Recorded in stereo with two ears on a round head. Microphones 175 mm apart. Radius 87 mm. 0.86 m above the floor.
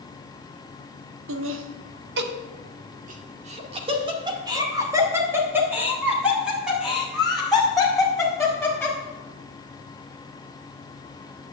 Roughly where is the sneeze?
I don't hear a sneeze.